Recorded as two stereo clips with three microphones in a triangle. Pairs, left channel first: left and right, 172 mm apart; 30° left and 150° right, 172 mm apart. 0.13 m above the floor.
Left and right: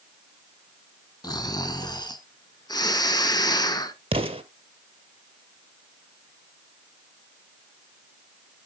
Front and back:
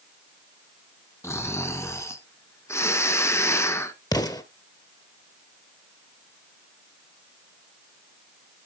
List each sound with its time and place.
1.2 s snoring: 80° left, 1.1 m
4.1 s an explosion: 40° right, 1.0 m